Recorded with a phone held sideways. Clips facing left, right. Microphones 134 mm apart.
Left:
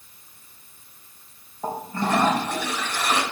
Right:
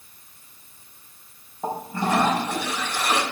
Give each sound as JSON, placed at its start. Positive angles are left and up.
{"t": 1.6, "sound": "a toilet flushing", "side_deg": -10, "distance_m": 3.0}